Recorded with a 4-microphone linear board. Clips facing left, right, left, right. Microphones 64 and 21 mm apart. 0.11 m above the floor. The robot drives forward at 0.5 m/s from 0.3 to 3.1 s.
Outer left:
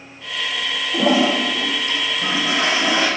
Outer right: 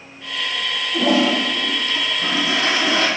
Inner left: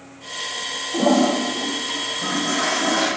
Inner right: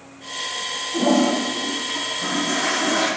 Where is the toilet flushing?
40° left (ahead or behind), 1.8 m; by 3.1 s 25° left (ahead or behind), 2.5 m.